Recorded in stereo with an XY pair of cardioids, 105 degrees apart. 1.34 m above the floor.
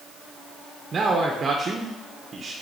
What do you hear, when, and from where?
0.9 s a man speaking: 40° right, 1.0 m